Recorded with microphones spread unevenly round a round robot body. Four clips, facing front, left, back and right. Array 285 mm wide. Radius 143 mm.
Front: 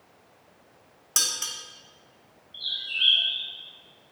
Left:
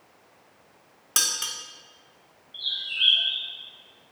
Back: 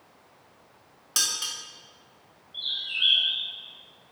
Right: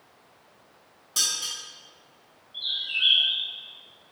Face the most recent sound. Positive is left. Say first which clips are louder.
# even, front 1 dB
turn(degrees=55)